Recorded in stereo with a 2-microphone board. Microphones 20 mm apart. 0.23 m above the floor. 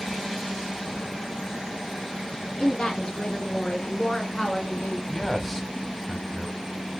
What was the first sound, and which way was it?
A woman speaking, 50° left (ahead or behind).